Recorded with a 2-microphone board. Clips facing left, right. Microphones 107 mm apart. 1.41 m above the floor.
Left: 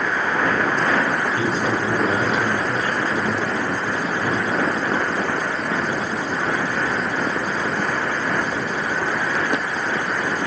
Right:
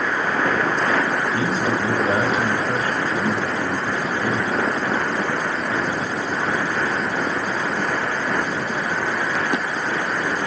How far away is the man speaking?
About 6.5 m.